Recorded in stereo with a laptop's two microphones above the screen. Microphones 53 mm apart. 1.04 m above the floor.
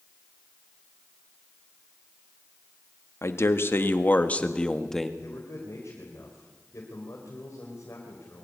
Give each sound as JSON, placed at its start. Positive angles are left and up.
{"t": 3.2, "sound": "a man speaking", "side_deg": 60, "distance_m": 1.9}
{"t": 5.2, "sound": "a man speaking", "side_deg": 60, "distance_m": 4.5}